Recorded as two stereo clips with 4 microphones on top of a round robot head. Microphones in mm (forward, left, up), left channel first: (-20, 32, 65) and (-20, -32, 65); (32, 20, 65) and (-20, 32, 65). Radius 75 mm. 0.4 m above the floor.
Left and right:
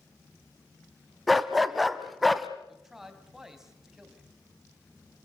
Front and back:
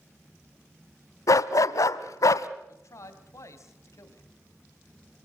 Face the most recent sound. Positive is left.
turn(degrees=-5)